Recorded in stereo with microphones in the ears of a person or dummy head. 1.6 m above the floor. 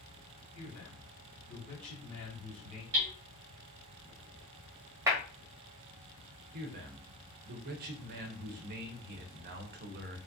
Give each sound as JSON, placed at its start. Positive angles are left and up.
{"t": 0.6, "sound": "a man speaking", "side_deg": 35, "distance_m": 1.8}
{"t": 2.9, "sound": "hammering", "side_deg": -45, "distance_m": 1.6}
{"t": 5.1, "sound": "a clap", "side_deg": -15, "distance_m": 1.3}
{"t": 6.5, "sound": "a man speaking", "side_deg": -50, "distance_m": 0.7}